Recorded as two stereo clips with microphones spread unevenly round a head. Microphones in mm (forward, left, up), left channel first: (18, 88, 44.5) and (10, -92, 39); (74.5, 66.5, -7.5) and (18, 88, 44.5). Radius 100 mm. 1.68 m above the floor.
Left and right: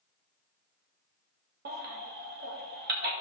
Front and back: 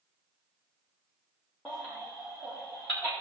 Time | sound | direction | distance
1.6 | a baby crying | 130° right | 1.7 m